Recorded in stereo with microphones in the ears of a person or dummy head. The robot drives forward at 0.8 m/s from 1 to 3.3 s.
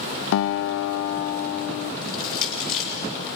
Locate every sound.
0.3 s a guitar: 75° left (ahead or behind), 0.7 m; by 1.9 s 40° left (ahead or behind), 1.0 m
2.0 s crushing: 45° left (ahead or behind), 7 m; by 2.9 s 50° left (ahead or behind), 6.5 m